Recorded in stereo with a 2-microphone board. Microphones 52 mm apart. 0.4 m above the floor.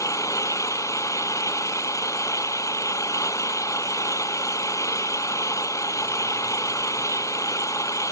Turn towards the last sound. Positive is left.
turn(degrees=85)